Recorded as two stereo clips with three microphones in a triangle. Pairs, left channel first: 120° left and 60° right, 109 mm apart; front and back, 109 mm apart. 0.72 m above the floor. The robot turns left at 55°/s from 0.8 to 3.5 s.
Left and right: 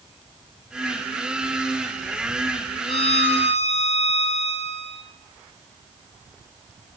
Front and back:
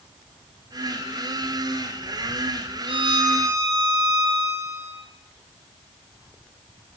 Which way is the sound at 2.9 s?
150° left.